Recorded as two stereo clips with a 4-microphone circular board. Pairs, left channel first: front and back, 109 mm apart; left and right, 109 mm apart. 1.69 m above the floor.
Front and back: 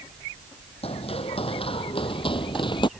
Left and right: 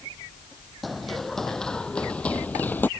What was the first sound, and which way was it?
Running footsteps, straight ahead.